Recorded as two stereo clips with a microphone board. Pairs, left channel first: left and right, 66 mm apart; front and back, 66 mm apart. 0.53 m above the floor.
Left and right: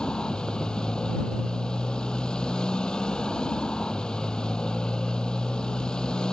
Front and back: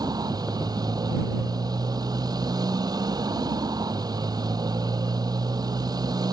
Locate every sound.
0.0 s a motorcycle: 170° left